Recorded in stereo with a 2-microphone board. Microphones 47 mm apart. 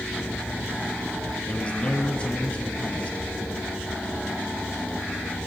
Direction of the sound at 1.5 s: 30° left (ahead or behind).